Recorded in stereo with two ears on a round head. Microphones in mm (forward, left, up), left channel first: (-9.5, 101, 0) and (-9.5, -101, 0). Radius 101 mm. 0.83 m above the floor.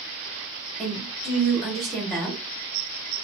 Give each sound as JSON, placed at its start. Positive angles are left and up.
{"t": 0.8, "sound": "a woman speaking", "side_deg": 0, "distance_m": 1.6}